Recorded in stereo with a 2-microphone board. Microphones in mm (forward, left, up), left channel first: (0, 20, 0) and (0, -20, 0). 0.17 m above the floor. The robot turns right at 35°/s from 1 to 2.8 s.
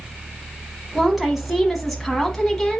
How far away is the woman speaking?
About 1.0 m.